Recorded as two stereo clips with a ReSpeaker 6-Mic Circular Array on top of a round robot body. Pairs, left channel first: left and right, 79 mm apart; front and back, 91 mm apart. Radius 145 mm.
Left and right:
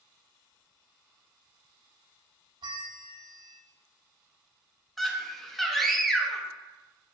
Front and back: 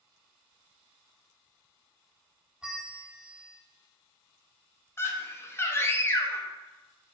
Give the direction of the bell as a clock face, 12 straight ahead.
3 o'clock.